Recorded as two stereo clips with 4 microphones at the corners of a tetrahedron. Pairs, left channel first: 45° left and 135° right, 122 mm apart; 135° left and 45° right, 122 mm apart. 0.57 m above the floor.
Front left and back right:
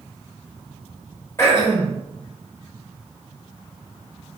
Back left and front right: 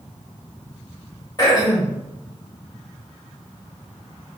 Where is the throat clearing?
100° left, 0.9 m.